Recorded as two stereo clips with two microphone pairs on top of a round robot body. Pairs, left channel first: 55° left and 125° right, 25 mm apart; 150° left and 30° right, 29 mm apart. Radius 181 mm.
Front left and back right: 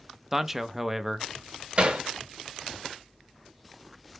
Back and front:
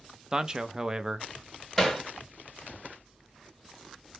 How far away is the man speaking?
About 0.6 m.